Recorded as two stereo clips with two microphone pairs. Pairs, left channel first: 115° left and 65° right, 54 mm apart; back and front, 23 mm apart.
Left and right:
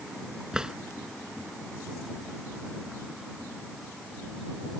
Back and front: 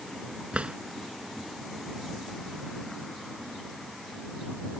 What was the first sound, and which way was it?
A drawer, 10° left.